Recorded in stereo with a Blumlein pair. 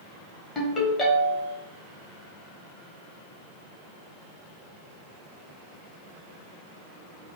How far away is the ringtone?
About 1.5 m.